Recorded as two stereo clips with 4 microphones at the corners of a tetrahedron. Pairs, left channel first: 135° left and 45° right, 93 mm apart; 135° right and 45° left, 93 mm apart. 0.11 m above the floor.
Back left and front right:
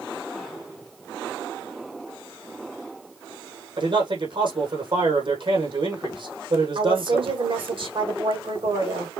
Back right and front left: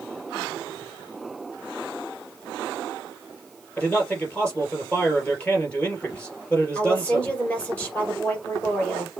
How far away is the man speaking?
About 3 m.